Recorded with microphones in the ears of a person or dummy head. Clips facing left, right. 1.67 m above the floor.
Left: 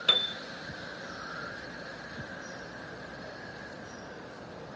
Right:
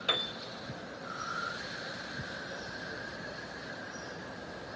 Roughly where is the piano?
Left.